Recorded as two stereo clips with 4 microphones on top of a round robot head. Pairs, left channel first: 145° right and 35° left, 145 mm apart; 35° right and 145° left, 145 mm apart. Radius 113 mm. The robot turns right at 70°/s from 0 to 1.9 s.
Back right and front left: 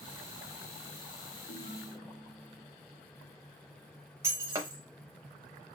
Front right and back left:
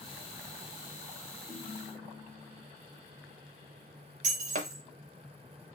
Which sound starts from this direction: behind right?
A ringtone, at 1.5 s.